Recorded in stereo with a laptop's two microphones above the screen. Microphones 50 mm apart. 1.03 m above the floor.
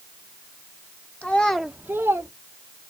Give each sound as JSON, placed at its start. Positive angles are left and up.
{"t": 1.2, "sound": "a child speaking", "side_deg": 30, "distance_m": 1.1}